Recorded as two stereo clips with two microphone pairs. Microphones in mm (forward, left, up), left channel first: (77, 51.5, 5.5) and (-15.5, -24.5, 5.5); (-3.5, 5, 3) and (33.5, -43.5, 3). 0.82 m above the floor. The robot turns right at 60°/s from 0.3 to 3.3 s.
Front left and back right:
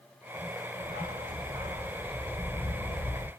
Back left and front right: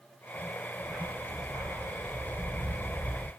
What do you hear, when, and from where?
0.8 s a dog barking: 130° right, 1.0 m; by 3.3 s 20° left, 1.0 m